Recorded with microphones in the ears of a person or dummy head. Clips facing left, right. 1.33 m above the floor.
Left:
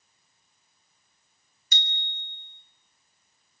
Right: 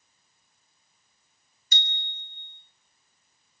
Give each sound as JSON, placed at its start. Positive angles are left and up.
{"t": 1.7, "sound": "a bicycle bell", "side_deg": 75, "distance_m": 3.0}